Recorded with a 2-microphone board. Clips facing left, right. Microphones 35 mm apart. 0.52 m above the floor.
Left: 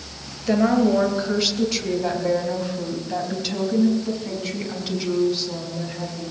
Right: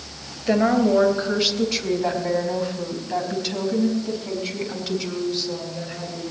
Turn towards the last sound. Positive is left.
turn(degrees=10)  # may be behind; listen again after turning